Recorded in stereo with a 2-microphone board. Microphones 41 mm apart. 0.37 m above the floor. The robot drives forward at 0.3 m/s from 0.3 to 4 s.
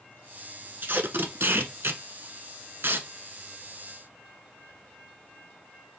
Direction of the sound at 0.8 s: 60° right (ahead or behind).